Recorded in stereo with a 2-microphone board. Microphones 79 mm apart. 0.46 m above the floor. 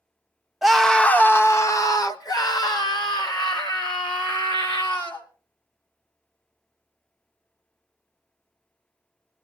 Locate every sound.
0.6 s a scream: 5° right (ahead or behind), 0.7 m; by 5.3 s 70° left (ahead or behind), 2.5 m